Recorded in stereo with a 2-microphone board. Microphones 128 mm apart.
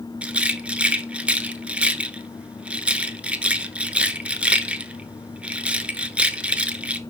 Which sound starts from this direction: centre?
A rattle, at 0.2 s.